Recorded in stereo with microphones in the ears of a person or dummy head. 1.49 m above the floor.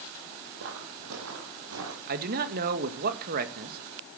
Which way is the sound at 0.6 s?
65° right (ahead or behind).